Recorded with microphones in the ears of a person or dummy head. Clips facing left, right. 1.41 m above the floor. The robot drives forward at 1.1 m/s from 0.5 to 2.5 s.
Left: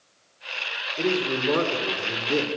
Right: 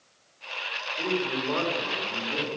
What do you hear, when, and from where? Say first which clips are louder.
1.0 s a man speaking: left 4 dB; 45° left (ahead or behind), 6 m; by 2.5 s 60° left (ahead or behind), 5 m